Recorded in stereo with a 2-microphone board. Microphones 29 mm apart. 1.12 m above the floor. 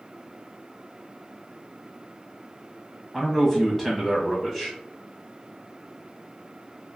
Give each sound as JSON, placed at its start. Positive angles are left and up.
{"t": 3.1, "sound": "a man speaking", "side_deg": 15, "distance_m": 1.2}